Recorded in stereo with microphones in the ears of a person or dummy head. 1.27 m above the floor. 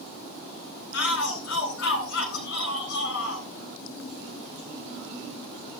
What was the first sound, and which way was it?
A shout, 75° left (ahead or behind).